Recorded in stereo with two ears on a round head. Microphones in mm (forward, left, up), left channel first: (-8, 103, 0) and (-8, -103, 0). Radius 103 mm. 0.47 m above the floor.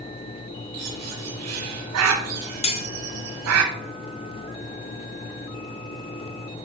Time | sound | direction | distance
0.7 | a bird | 75° right (ahead or behind) | 0.8 m
2.6 | cutlery clinking | 25° left (ahead or behind) | 0.5 m